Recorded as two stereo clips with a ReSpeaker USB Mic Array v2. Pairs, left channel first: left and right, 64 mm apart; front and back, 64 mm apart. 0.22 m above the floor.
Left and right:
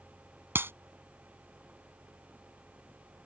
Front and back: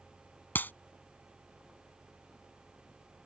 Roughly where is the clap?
Ahead right.